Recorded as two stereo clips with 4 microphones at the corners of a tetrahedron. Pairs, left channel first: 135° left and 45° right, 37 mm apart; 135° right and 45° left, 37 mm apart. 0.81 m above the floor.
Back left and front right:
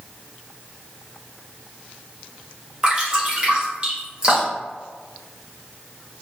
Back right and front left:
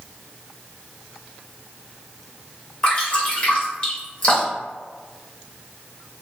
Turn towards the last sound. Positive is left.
turn(degrees=-100)